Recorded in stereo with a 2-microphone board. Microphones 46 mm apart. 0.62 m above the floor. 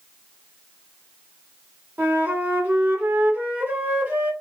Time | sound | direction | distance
2.0 | a flute | 45° right (ahead or behind) | 1.7 m